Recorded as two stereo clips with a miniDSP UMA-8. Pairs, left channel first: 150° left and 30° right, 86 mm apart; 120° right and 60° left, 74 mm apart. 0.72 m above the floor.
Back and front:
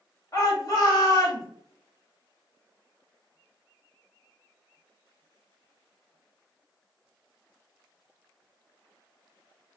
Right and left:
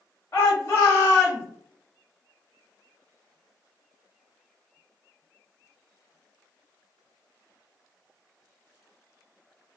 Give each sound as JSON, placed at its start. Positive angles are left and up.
{"t": 0.3, "sound": "a shout", "azimuth_deg": -170, "distance_m": 1.6}